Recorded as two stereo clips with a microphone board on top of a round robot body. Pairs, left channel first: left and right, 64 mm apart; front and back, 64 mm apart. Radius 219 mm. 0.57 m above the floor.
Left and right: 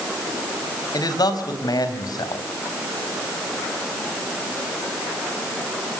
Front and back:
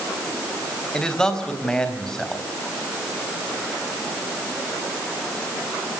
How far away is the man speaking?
About 4 m.